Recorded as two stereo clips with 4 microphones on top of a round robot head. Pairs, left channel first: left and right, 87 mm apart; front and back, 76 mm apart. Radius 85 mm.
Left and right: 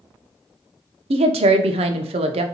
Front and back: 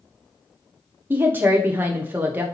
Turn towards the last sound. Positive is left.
turn(degrees=-110)